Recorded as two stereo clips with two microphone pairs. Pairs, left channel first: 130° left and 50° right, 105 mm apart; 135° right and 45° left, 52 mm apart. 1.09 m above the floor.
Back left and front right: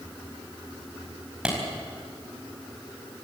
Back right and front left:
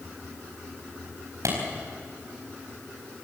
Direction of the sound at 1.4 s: 30° left.